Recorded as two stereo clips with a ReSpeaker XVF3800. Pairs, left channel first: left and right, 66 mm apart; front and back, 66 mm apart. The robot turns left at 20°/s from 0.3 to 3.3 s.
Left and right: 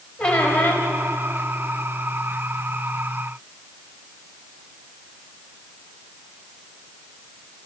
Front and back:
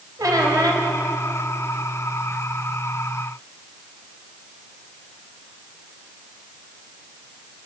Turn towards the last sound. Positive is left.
turn(degrees=105)